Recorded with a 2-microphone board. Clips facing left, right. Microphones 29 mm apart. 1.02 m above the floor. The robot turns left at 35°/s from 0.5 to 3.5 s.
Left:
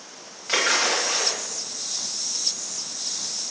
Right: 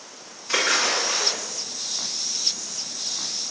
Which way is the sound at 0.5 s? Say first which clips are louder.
Even; 55° left (ahead or behind).